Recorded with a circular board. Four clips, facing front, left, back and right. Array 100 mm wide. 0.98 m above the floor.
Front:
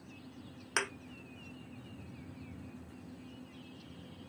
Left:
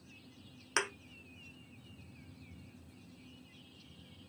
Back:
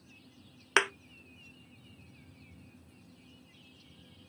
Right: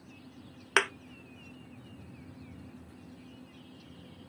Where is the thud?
135° right, 0.6 m.